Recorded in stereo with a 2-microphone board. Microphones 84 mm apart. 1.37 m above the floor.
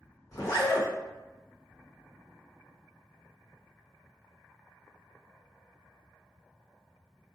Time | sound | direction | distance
0.3 | a zipper | 40° left (ahead or behind) | 1.1 m